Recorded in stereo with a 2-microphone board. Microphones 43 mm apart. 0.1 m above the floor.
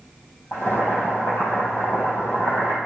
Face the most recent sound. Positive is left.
turn(degrees=65)  # may be behind; listen again after turning